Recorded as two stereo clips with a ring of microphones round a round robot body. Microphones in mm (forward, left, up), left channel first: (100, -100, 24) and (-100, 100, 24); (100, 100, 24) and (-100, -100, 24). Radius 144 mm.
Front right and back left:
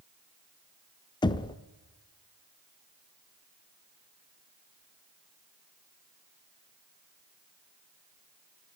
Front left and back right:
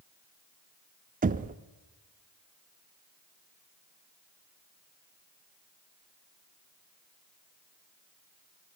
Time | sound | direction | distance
1.2 | knocking | 105° right | 0.6 m